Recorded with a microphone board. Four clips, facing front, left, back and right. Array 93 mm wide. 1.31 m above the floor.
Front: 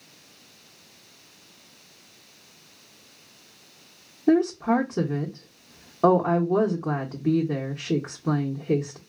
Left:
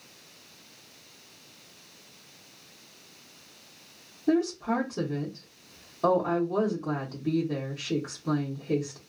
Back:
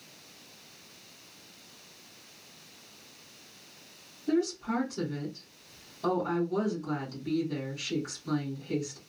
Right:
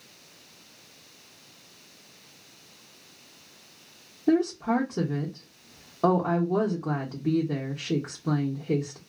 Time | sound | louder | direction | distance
4.3 | a woman speaking | right 2 dB, front 8 dB | 20° right | 0.8 m